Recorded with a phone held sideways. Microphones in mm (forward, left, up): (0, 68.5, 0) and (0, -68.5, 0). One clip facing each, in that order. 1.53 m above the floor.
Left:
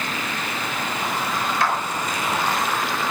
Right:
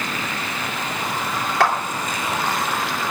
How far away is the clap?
About 3 m.